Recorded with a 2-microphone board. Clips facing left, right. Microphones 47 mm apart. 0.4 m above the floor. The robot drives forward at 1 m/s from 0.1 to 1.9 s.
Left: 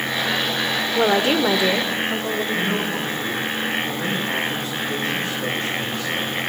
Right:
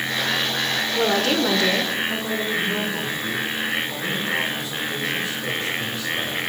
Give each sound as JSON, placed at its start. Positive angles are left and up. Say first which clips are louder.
{"t": 0.9, "sound": "a woman speaking", "louder": "left 3 dB", "side_deg": 20, "distance_m": 1.1}
{"t": 2.5, "sound": "a man speaking", "louder": "left 1 dB", "side_deg": 50, "distance_m": 6.5}